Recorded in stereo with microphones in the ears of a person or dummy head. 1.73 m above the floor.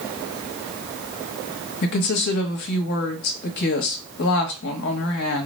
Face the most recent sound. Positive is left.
turn(degrees=60)  # may be behind; listen again after turning